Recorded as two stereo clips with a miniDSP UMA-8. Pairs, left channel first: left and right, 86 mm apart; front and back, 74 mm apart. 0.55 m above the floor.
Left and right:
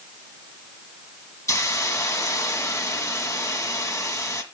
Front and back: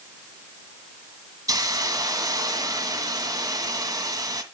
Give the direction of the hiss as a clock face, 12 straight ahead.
7 o'clock.